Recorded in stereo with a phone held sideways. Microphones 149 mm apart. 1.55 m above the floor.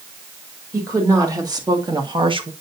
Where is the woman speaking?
25° right (ahead or behind), 2 m; by 2.5 s 40° right (ahead or behind), 1.1 m.